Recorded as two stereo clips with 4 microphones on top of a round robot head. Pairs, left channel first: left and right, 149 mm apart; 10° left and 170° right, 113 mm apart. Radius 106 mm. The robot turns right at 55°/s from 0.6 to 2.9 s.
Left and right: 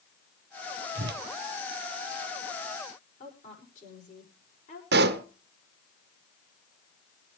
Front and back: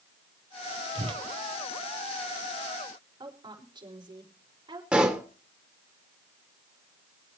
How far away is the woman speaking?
About 5.5 m.